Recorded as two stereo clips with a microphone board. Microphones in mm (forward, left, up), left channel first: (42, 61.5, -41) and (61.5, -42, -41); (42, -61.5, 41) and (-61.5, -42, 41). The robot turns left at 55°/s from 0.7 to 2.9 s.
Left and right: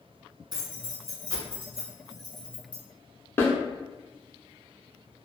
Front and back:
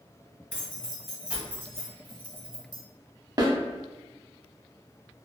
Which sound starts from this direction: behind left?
A snare drum, at 3.4 s.